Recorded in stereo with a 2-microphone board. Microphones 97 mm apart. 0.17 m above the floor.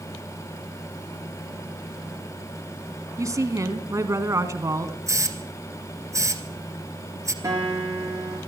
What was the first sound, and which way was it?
A woman speaking, 35° right (ahead or behind).